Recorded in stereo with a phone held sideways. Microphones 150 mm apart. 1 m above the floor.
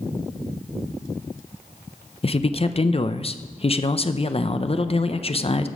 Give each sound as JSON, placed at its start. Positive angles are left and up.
{"t": 2.2, "sound": "a man speaking", "side_deg": 40, "distance_m": 0.6}